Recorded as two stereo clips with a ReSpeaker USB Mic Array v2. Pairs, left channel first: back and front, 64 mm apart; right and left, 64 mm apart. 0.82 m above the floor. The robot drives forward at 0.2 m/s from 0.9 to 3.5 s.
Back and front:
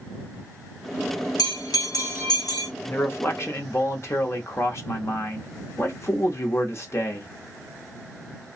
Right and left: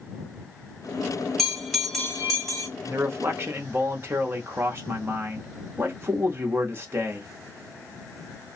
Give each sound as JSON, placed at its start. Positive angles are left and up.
{"t": 1.4, "sound": "a bell", "azimuth_deg": -175, "distance_m": 1.2}
{"t": 2.8, "sound": "a man speaking", "azimuth_deg": 130, "distance_m": 0.7}